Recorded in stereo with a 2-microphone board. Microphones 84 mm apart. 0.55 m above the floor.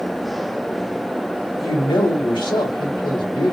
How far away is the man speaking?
About 2.5 m.